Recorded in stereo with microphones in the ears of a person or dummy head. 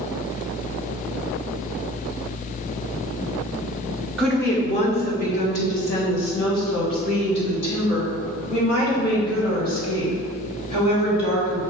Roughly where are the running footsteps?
No running footsteps in this recording.